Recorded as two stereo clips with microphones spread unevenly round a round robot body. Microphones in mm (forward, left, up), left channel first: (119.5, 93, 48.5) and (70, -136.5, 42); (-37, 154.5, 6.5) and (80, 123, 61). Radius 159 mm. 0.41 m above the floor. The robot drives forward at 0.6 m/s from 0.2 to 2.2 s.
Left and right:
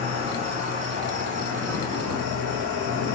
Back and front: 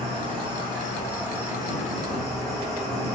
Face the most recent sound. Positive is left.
turn(degrees=-140)